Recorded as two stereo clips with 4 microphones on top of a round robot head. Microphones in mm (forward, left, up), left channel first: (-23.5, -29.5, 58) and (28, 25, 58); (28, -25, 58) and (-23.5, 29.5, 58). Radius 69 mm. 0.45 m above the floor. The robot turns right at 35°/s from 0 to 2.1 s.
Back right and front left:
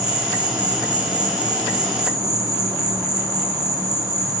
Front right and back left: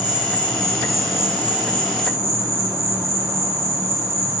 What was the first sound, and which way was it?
An insect, 10° left.